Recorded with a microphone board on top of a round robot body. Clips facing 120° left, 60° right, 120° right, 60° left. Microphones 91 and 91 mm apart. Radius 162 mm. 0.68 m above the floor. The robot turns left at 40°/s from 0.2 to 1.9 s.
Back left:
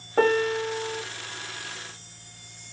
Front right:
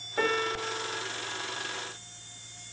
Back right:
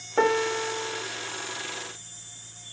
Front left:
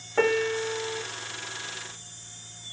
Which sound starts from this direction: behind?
A piano, at 0.2 s.